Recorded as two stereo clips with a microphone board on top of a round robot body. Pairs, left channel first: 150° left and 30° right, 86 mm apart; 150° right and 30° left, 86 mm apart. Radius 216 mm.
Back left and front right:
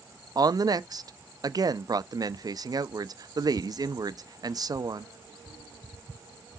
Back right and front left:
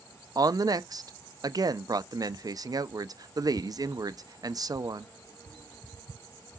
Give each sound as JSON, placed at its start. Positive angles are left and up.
{"t": 0.3, "sound": "a woman speaking", "azimuth_deg": 0, "distance_m": 0.9}